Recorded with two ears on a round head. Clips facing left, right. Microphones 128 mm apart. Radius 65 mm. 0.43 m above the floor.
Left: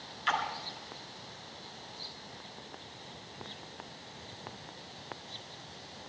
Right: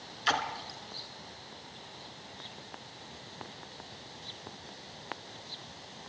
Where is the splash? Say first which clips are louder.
Right 1 dB; 40° right (ahead or behind), 2.5 m.